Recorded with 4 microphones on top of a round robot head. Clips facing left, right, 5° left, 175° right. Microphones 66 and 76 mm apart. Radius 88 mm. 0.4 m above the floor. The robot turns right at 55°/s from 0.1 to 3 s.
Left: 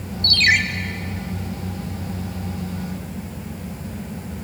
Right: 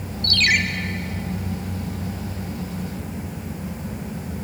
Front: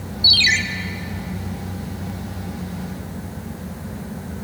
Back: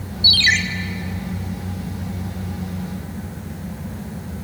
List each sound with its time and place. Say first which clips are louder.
0.2 s a ringtone: left 3 dB, back 1 dB; 135° left, 1.5 m; by 0.6 s 150° left, 1.5 m